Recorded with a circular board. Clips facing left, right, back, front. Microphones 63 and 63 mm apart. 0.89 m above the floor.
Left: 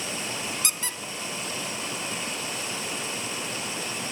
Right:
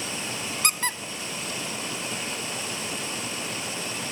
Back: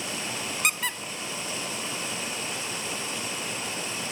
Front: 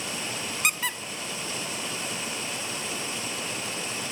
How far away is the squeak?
About 0.5 m.